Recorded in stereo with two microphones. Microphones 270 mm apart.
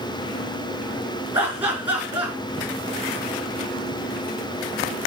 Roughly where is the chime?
No chime in this recording.